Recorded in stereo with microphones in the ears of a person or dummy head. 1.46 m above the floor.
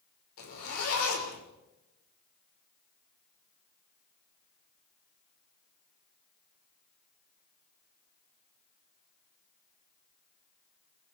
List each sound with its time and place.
0.4 s a zipper: 85° left, 6 m